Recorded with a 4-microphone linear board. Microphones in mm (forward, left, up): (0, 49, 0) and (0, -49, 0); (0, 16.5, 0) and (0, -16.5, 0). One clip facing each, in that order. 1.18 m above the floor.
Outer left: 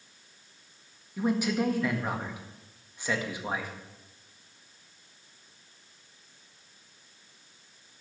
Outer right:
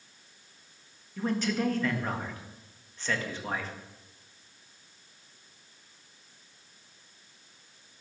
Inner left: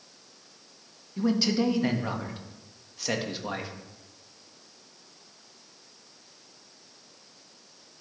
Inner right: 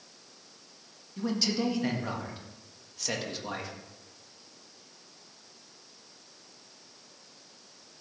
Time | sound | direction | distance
1.2 | a man speaking | 10° left (ahead or behind) | 1.9 m